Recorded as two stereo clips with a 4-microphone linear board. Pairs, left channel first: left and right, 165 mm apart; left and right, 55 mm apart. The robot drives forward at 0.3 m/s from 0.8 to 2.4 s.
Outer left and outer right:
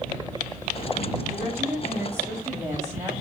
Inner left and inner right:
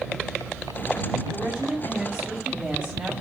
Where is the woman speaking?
10° right (ahead or behind), 0.8 m; by 3.1 s 15° right (ahead or behind), 0.6 m.